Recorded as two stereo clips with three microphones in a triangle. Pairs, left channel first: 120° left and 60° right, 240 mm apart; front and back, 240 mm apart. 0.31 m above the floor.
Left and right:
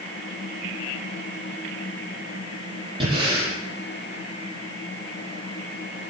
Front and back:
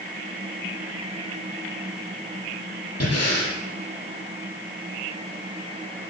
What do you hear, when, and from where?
3.0 s breathing: 10° left, 9 m